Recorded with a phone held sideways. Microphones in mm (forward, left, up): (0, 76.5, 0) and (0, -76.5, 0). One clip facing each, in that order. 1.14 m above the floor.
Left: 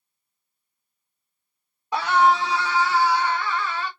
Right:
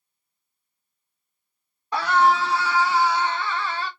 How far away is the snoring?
No snoring in this recording.